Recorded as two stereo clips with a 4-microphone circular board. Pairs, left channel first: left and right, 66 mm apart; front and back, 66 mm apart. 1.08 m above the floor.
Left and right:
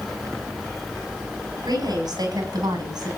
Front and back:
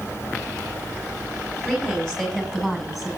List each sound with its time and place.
1.6 s a woman speaking: 80° right, 8 m; by 3.1 s 90° right, 8.5 m